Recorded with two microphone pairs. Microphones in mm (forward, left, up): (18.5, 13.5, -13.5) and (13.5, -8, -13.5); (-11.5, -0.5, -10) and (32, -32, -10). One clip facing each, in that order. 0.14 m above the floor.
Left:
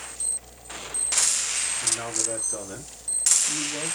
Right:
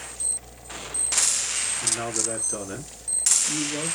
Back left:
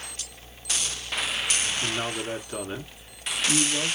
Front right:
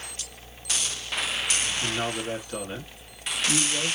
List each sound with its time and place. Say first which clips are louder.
1.8 s a man speaking: right 1 dB, front right 1 dB; 140° right, 1.2 m